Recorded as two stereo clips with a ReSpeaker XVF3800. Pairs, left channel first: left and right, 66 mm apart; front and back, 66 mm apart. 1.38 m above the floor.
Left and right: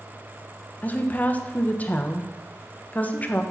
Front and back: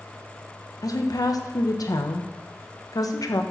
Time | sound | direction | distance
0.8 | a woman speaking | 25° left | 1.1 m